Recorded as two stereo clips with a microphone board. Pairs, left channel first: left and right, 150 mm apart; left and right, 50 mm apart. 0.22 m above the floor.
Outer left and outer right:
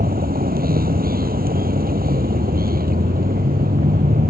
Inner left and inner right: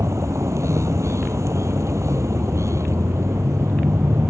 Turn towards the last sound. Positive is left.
turn(degrees=-75)  # may be behind; listen again after turning